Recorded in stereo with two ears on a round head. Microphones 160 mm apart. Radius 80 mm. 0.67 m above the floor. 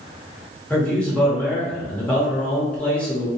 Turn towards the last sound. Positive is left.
turn(degrees=10)  # may be behind; listen again after turning